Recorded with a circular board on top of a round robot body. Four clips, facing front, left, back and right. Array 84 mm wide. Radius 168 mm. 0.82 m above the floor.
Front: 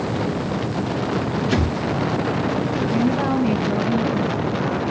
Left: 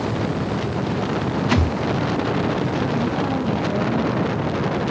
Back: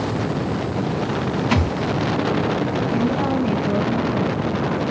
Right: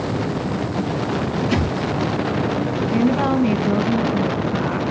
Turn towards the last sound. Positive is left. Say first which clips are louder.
# right 4 dB, front 2 dB
turn(degrees=-75)